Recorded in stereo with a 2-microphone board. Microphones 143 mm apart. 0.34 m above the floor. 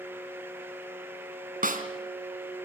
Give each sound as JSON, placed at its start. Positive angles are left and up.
{"t": 1.6, "sound": "a snare drum", "side_deg": -75, "distance_m": 2.5}